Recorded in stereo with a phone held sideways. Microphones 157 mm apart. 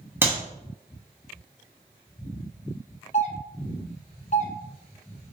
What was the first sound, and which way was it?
A clap, 15° right (ahead or behind).